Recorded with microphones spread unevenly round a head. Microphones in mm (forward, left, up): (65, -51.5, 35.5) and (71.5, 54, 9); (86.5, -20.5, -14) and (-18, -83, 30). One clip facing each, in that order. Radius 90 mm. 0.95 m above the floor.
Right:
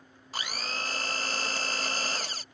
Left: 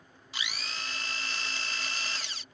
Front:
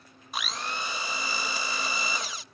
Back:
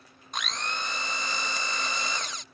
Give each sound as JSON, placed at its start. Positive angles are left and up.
{"t": 0.3, "sound": "a blender", "azimuth_deg": -40}